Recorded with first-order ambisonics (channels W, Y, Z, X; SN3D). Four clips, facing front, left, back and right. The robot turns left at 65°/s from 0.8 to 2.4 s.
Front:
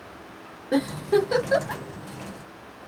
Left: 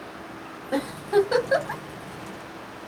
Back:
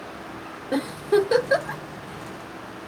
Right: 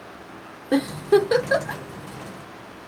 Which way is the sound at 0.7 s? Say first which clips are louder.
Right 4 dB, even; 85° right.